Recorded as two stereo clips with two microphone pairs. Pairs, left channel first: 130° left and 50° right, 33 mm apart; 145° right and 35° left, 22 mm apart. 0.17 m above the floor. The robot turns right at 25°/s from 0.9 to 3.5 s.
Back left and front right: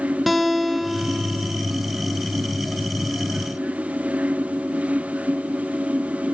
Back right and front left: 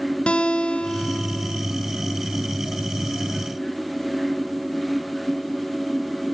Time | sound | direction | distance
0.3 | a guitar | 140° right | 1.9 m